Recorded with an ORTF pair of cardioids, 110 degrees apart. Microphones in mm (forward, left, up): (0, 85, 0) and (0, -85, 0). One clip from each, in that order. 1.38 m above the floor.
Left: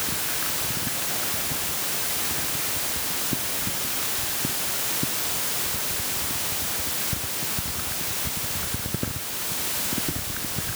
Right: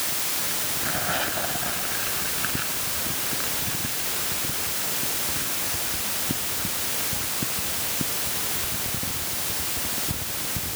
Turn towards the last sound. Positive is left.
No sound to turn to.